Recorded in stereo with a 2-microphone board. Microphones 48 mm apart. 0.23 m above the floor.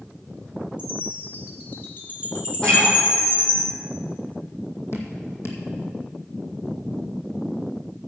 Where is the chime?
45° left (ahead or behind), 2 m.